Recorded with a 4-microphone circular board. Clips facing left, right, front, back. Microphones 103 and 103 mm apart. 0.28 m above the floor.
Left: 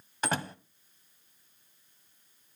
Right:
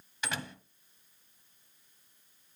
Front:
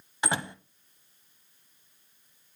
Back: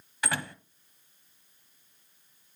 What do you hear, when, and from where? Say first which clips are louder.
0.2 s a door slam: left 6 dB, front 2 dB; 60° left, 1.5 m